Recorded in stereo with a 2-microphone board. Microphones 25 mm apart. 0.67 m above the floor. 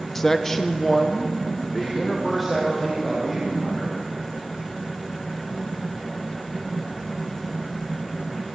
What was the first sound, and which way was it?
A man speaking, 10° left (ahead or behind).